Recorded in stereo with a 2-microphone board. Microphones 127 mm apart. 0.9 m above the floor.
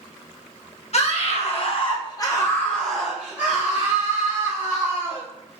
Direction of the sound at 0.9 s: 60° left (ahead or behind).